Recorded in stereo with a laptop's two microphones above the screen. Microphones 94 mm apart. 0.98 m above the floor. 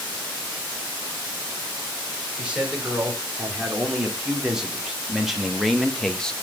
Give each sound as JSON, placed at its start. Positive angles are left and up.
{"t": 2.4, "sound": "a man speaking", "side_deg": -15, "distance_m": 3.5}